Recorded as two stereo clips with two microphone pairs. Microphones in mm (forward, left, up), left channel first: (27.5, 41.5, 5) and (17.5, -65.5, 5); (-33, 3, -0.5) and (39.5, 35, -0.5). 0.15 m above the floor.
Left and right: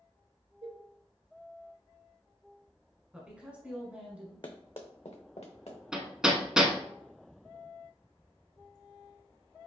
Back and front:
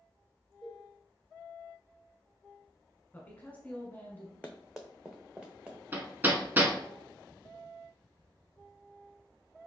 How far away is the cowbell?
About 0.9 m.